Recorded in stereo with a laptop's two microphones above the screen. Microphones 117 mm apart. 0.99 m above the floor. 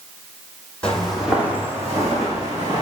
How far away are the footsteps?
About 1.5 m.